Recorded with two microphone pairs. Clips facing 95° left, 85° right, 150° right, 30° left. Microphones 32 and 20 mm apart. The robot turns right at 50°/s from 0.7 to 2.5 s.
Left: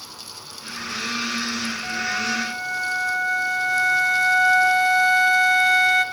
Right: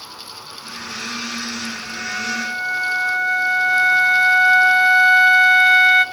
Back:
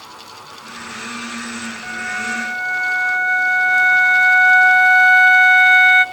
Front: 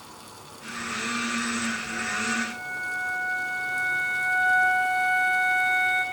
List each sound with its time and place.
1.8 s a flute: 170° left, 0.7 m; by 6.0 s 155° right, 0.7 m